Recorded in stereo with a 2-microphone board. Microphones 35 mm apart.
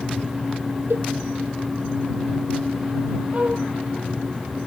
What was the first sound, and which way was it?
A cowbell, 85° right.